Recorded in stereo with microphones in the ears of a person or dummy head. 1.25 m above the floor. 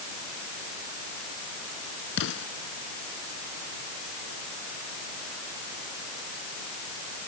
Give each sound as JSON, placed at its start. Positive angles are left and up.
{"t": 2.2, "sound": "an explosion", "side_deg": 70}